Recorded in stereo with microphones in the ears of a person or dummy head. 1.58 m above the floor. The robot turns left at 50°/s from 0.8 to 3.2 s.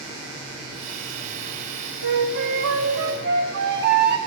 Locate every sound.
2.0 s a flute: 60° right, 1.5 m; by 4.2 s 120° right, 1.5 m